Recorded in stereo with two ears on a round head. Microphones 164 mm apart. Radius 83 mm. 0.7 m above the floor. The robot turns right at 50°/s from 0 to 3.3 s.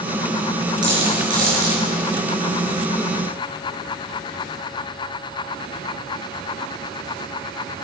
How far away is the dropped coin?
About 6 m.